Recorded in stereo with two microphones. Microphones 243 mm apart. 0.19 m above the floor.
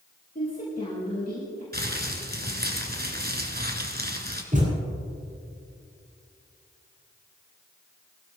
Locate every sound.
0.3 s a woman speaking: 35° left (ahead or behind), 5.5 m
1.7 s crumpling: 40° right (ahead or behind), 2 m
4.5 s a thud: 30° right (ahead or behind), 6.5 m